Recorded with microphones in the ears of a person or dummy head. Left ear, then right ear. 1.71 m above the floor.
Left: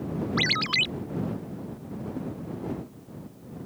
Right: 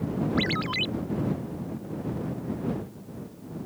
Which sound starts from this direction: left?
A ringtone, at 0.4 s.